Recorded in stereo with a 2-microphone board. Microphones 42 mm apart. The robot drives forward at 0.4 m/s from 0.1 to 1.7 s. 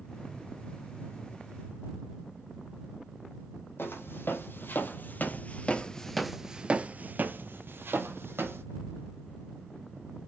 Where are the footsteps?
65° left (ahead or behind), 1.4 m; by 8.6 s 70° right (ahead or behind), 1.3 m.